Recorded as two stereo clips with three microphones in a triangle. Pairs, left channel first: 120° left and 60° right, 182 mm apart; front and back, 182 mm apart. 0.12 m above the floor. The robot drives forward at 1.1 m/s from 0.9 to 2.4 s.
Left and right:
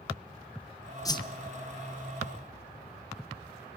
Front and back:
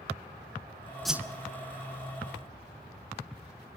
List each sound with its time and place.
1.1 s a whoosh: 85° left, 0.6 m; by 1.4 s 145° left, 0.7 m